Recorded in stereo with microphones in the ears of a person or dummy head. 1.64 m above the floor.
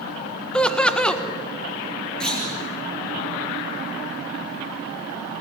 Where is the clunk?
10° left (ahead or behind), 7 m.